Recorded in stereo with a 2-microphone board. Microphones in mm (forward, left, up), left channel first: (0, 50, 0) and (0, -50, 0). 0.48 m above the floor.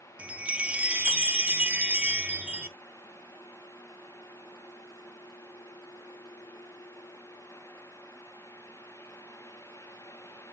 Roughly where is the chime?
Centre.